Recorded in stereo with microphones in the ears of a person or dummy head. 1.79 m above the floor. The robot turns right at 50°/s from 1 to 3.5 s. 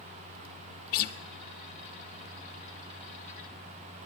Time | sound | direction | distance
0.9 | a guitar | 55° left (ahead or behind) | 0.6 m